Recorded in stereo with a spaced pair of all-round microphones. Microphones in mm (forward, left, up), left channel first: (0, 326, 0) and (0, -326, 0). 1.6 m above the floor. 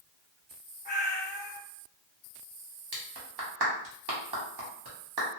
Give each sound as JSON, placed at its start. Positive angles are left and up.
{"t": 0.8, "sound": "a cat meowing", "side_deg": 15, "distance_m": 0.9}
{"t": 2.9, "sound": "a clap", "side_deg": -35, "distance_m": 0.9}